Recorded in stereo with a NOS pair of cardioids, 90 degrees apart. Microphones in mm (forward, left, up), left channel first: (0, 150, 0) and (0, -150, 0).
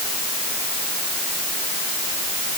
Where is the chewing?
I don't hear chewing.